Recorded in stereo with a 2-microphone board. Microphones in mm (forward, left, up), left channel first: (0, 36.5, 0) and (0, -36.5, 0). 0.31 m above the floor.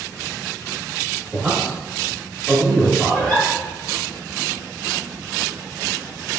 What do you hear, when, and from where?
1.3 s a man speaking: 15° right (ahead or behind), 1.2 m; by 3.4 s 25° left (ahead or behind), 1.4 m
3.1 s a giggle: 20° left (ahead or behind), 1.8 m